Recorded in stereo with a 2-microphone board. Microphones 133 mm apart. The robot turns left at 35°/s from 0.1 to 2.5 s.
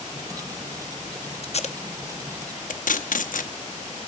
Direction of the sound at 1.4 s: 50° left (ahead or behind).